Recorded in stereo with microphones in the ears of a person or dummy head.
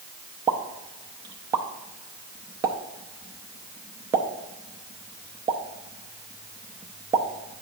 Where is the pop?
15° right (ahead or behind), 0.6 m.